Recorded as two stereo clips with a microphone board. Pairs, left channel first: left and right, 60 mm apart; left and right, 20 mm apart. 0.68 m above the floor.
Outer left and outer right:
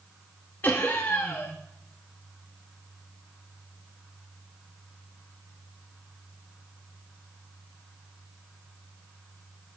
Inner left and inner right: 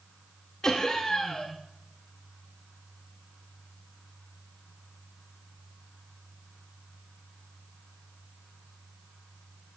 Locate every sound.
0.6 s laughter: 30° left (ahead or behind), 0.9 m